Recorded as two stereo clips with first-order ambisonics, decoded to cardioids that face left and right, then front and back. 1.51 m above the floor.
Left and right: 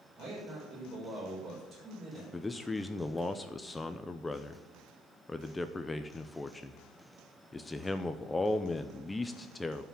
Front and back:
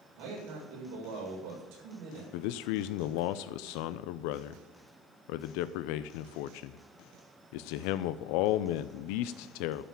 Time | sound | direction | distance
0.2 | a man speaking | 160° right | 6.5 m
2.3 | a man speaking | 10° left | 0.5 m